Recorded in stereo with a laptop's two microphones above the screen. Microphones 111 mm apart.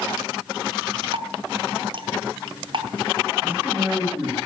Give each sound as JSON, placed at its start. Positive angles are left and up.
{"t": 1.1, "sound": "dripping", "side_deg": -55, "distance_m": 0.8}
{"t": 3.4, "sound": "a man speaking", "side_deg": -20, "distance_m": 4.5}